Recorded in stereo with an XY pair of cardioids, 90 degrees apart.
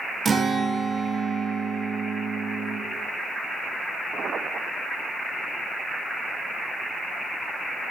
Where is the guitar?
30° right, 0.7 m.